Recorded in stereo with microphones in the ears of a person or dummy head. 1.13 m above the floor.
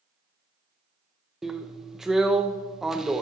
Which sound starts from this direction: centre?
A drill, at 1.4 s.